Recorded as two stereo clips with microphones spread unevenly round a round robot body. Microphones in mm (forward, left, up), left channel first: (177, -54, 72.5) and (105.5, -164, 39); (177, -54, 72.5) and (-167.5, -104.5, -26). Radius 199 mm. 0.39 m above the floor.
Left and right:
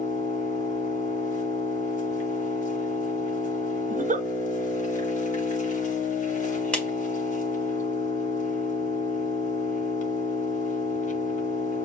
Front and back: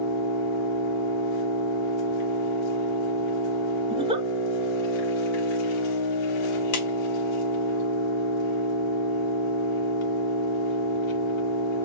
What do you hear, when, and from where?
0.0 s an engine running: 25° left, 1.5 m
3.9 s a giggle: 95° right, 0.7 m
6.7 s a clap: 30° right, 1.9 m